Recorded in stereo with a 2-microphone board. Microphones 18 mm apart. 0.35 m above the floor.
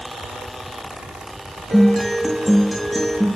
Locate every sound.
1.7 s a guitar: centre (ahead or behind), 5.5 m